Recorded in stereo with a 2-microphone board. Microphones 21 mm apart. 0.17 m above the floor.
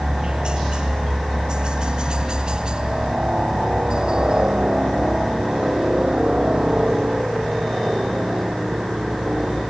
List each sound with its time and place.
0.0 s a helicopter: 45° right (ahead or behind); by 9.7 s 40° right (ahead or behind)